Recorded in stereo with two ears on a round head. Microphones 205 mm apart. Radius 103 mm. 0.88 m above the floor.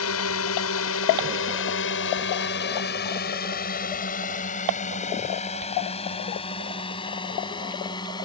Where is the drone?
70° left (ahead or behind); by 8.2 s 20° left (ahead or behind).